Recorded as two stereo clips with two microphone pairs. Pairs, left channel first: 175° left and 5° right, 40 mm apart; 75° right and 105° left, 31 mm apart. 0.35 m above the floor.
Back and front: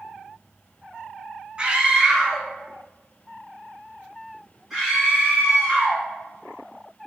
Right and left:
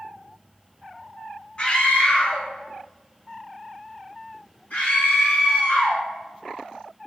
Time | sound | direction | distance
1.6 | a scream | 50° right | 0.9 m